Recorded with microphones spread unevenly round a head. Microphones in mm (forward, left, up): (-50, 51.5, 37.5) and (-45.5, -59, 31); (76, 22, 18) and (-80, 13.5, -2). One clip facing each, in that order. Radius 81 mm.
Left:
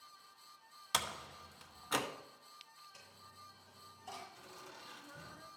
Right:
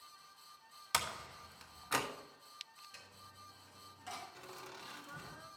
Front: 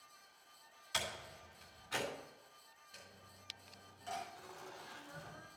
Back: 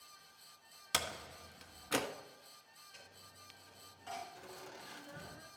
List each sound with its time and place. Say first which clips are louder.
0.9 s a door slam: right 1 dB, back 2 dB; 175° left, 1.0 m
2.9 s a dropped coin: right 1 dB, front 1 dB; 70° right, 4 m
4.3 s laughter: right 3 dB, back 1 dB; 110° right, 2 m